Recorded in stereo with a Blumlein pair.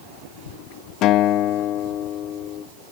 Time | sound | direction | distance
1.0 | a guitar | 35° left | 0.6 m